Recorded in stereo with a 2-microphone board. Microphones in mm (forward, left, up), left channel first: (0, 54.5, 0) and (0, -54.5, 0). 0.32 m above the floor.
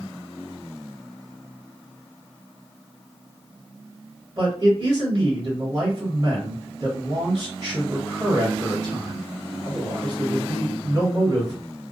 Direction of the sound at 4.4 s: 45° right (ahead or behind).